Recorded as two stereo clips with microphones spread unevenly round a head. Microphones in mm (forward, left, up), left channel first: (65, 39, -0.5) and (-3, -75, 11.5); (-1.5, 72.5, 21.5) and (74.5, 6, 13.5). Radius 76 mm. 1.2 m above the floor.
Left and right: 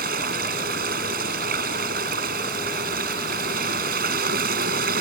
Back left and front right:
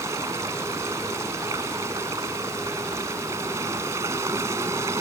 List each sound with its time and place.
0.0 s running water: 115° right